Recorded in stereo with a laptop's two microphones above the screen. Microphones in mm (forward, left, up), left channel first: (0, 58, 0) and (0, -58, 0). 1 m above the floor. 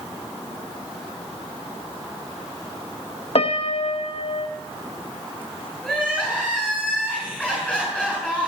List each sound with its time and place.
3.4 s a piano: 60° left (ahead or behind), 1.0 m
5.8 s crying: 10° left (ahead or behind), 5.5 m